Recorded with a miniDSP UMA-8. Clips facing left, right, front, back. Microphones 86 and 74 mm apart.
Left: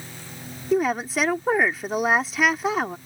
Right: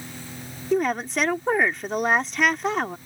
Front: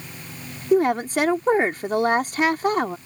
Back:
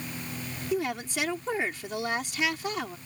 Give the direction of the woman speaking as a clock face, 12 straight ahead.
12 o'clock.